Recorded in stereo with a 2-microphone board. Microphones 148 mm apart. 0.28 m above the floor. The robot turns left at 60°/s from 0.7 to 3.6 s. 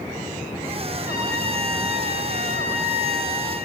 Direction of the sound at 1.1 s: 10° right.